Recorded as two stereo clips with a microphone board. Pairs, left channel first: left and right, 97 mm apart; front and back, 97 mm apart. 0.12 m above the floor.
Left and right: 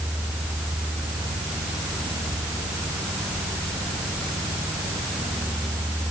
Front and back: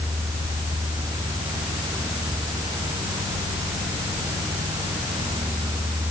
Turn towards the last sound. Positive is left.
No sound to turn to.